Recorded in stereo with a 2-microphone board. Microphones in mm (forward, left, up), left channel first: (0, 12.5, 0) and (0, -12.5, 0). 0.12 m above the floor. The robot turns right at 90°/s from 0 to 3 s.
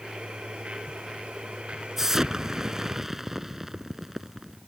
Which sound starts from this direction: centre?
An explosion, at 2.0 s.